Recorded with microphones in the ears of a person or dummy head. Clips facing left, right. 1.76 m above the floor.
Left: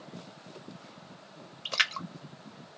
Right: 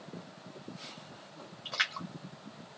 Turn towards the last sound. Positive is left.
turn(degrees=45)  # may be behind; listen again after turning